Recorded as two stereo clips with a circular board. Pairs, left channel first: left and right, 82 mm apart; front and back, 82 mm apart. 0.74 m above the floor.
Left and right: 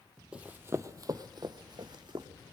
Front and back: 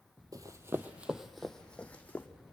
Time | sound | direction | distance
0.3 | running footsteps | 165° right | 1.0 m